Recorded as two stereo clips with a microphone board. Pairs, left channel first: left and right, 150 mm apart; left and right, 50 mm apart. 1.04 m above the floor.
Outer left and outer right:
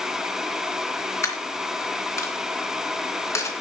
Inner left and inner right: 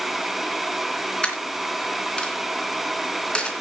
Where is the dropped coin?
20° left (ahead or behind), 3 m.